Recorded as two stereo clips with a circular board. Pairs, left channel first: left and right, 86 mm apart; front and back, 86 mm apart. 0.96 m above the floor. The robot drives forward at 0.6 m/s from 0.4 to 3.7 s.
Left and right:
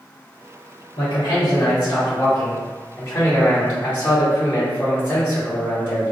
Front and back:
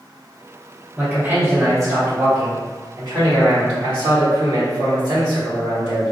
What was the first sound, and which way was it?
A man speaking, 110° left.